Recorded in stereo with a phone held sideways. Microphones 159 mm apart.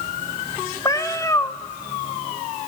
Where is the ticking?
I don't hear ticking.